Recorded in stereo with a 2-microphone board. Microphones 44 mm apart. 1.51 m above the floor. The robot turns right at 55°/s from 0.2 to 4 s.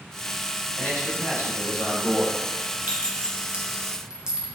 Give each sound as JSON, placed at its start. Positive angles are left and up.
{"t": 0.8, "sound": "a man speaking", "azimuth_deg": 35, "distance_m": 1.4}
{"t": 2.9, "sound": "a clink", "side_deg": -40, "distance_m": 0.7}